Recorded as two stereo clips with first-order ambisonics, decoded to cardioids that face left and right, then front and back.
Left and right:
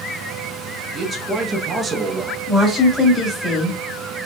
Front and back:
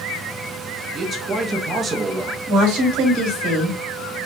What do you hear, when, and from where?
0.9 s a man speaking: 140° right, 0.7 m
2.5 s a woman speaking: 175° left, 2 m